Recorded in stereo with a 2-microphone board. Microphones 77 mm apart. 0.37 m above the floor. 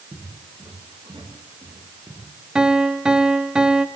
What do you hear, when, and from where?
0.1 s footsteps: 60° right (ahead or behind), 8.5 m
2.5 s a piano: 10° right (ahead or behind), 1.4 m